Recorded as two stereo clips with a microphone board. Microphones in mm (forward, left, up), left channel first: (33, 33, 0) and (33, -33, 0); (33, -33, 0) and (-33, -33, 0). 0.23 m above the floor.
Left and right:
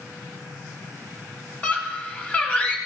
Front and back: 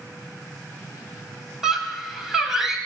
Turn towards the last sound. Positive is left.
turn(degrees=105)